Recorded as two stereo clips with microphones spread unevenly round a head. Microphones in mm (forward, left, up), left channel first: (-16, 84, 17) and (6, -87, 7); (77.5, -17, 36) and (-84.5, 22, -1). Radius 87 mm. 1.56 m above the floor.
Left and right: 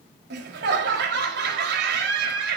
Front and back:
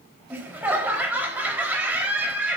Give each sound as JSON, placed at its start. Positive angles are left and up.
{"t": 0.3, "sound": "laughter", "azimuth_deg": -110, "distance_m": 4.0}